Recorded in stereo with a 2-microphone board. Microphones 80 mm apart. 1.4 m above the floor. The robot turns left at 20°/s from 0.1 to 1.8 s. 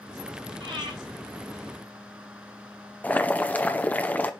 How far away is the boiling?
About 0.7 m.